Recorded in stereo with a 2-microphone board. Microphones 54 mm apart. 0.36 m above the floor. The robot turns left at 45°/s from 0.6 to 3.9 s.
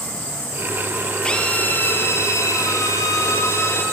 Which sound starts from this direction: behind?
A drill, at 1.2 s.